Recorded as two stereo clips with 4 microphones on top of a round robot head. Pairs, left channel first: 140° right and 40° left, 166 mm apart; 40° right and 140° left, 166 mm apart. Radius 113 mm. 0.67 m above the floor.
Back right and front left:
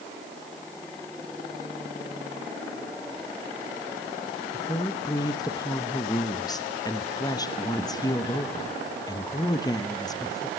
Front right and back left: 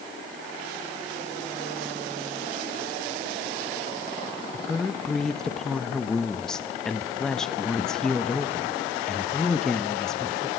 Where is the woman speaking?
120° right, 1.1 m.